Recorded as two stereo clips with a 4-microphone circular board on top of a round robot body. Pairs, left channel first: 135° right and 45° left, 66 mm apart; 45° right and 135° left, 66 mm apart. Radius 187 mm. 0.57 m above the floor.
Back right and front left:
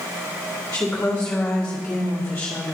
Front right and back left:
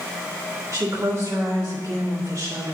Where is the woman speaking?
160° left, 2 m.